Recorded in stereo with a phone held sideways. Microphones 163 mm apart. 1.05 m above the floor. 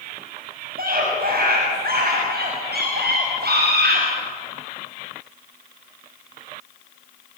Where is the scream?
65° right (ahead or behind), 6.5 m; by 4.0 s 85° right, 5 m.